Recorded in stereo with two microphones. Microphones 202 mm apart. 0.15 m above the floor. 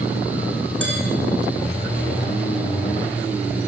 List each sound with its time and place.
0.8 s dishes clattering: 70° right (ahead or behind), 6.5 m